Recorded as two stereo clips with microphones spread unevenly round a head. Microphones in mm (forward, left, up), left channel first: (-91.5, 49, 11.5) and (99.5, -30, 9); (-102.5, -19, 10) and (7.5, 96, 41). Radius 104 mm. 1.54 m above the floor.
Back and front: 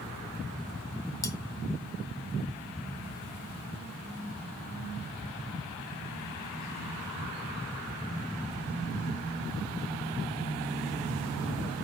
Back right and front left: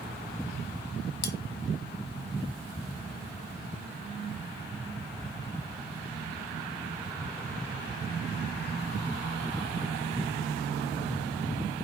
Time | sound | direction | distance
1.2 | cutlery clinking | 130° right | 1.1 m